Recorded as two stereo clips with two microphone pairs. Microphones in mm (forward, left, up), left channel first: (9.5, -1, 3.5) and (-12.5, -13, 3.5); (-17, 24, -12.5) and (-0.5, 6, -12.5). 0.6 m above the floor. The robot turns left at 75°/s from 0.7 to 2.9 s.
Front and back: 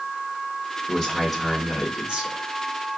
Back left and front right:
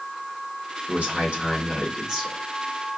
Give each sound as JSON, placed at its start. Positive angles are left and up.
{"t": 0.9, "sound": "a man speaking", "azimuth_deg": -25, "distance_m": 1.8}